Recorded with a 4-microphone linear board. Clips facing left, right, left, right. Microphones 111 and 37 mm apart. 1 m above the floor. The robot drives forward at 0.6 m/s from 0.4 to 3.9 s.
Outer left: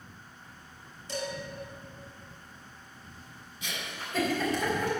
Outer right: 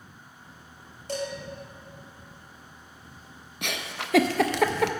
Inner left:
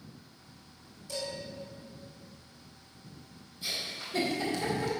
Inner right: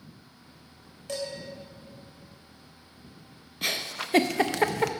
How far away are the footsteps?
I don't hear footsteps.